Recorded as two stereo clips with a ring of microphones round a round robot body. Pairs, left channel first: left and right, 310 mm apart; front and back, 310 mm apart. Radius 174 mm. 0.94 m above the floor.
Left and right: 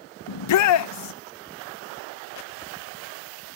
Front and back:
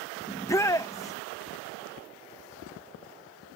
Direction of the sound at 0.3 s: 80° left.